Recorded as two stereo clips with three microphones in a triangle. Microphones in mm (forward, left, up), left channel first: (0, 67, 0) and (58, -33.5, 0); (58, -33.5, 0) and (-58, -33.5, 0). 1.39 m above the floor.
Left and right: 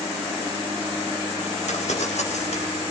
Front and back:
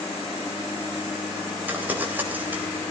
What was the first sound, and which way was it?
Crumpling, 105° left.